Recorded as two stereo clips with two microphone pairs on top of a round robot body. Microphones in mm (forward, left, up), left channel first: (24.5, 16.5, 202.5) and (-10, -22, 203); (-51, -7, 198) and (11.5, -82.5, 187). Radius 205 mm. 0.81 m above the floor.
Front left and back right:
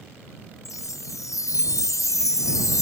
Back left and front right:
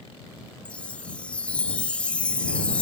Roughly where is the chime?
Ahead left.